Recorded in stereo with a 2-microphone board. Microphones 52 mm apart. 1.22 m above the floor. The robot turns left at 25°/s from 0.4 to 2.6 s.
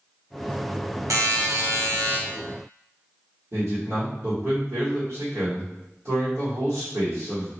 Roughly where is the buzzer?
Right.